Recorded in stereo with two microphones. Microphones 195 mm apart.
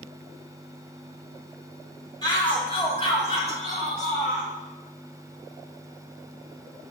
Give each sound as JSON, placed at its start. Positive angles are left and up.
{"t": 2.2, "sound": "a shout", "side_deg": 20, "distance_m": 2.5}